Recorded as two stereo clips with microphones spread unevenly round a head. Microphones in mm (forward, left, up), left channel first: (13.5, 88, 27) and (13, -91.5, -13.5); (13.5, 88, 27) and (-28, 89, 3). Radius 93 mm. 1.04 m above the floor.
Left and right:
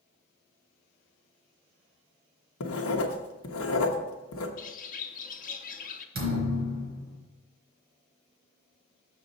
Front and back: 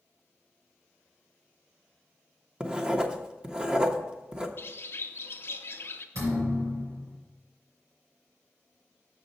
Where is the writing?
110° left, 0.9 m.